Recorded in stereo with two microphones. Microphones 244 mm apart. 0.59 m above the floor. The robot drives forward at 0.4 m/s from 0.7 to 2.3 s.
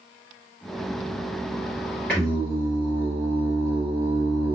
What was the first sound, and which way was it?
Singing, 5° left (ahead or behind).